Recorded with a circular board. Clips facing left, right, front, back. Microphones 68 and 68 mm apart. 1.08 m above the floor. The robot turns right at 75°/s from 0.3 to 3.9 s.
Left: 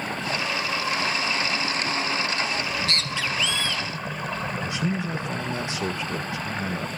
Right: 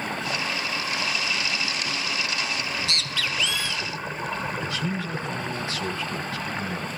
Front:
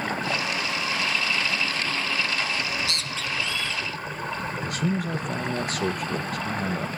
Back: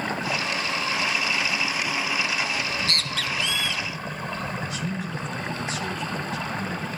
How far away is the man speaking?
About 1.2 m.